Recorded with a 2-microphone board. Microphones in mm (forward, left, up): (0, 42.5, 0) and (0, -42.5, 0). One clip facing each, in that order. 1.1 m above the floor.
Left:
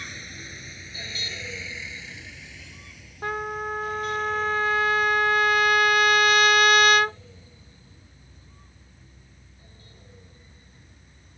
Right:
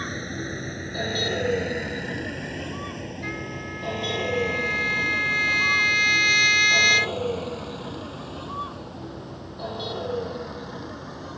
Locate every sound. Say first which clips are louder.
0.0 s a vehicle: right 10 dB; 40° right (ahead or behind); by 11.4 s 75° right (ahead or behind)
3.2 s a trumpet: left 9 dB; 55° left (ahead or behind)